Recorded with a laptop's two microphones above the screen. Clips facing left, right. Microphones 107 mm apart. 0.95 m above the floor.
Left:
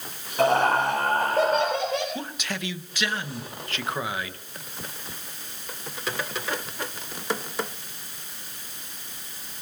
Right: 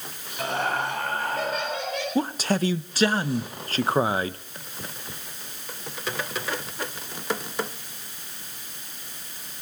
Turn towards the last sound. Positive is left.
turn(degrees=-35)  # may be behind; listen again after turning